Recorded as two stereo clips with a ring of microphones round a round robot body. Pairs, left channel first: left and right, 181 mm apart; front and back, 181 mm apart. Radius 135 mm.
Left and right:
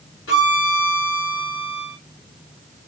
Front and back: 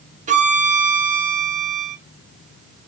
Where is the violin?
135° left, 1.1 m.